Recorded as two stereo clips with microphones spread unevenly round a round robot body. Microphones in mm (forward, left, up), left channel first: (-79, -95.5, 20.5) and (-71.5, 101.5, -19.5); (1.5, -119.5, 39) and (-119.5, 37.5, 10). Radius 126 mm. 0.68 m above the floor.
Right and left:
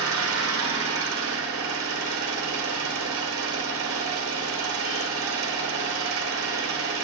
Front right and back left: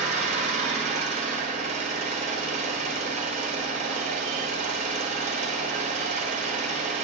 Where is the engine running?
65° left, 1.5 m.